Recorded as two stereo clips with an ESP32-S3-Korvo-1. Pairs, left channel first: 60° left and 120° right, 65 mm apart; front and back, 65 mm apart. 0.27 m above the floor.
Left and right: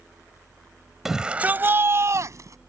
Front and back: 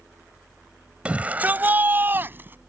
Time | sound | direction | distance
1.1 | a shout | 165° left | ?